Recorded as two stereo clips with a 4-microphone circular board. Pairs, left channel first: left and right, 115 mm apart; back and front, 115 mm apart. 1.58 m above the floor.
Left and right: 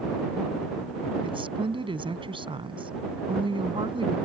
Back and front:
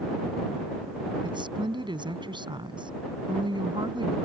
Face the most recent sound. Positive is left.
turn(degrees=-45)